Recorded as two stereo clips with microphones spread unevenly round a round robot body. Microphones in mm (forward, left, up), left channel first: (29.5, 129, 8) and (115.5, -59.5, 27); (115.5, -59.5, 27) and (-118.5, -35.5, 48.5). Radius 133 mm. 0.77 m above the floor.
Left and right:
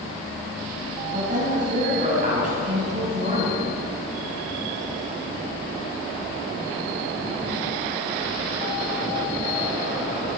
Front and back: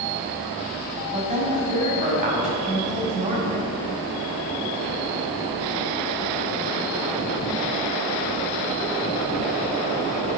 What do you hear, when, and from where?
1.1 s a woman speaking: 125° right, 5.5 m